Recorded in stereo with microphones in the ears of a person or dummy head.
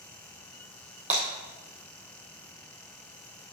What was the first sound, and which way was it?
Breaking glass, 10° right (ahead or behind).